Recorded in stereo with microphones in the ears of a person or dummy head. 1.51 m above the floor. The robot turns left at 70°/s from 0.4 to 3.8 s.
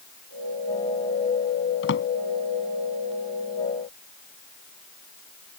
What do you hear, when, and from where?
1.8 s a drawer: 80° left; by 2.1 s 65° left (ahead or behind)